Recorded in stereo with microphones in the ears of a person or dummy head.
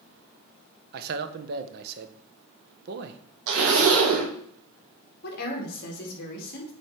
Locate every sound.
0.9 s a man speaking: 60° right (ahead or behind), 0.8 m
3.5 s a zipper: 85° right, 2.5 m
5.2 s a woman speaking: 45° left (ahead or behind), 2.5 m